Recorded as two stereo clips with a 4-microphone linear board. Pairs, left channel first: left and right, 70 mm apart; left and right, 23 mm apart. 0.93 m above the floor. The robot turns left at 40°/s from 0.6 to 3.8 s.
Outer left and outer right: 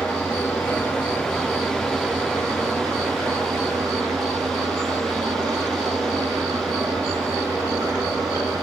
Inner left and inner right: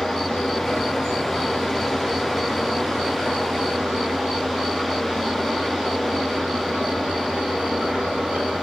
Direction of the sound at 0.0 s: 40° left.